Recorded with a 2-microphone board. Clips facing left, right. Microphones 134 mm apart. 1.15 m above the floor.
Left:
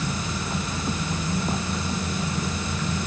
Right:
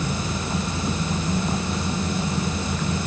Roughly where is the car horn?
No car horn in this recording.